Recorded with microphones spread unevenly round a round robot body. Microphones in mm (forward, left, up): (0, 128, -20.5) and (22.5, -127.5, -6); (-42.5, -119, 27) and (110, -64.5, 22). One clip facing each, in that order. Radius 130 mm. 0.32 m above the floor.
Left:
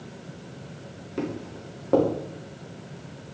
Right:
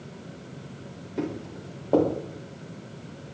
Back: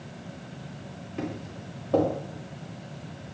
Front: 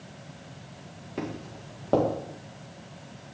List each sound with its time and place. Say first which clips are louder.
1.2 s footsteps: even, even; 20° left, 3.5 m